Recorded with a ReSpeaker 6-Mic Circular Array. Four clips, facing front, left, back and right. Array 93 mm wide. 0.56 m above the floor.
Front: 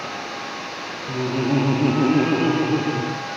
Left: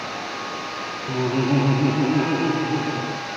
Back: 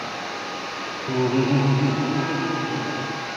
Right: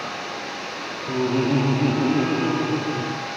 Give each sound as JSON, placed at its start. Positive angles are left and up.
{"t": 1.1, "sound": "laughter", "azimuth_deg": 175, "distance_m": 0.6}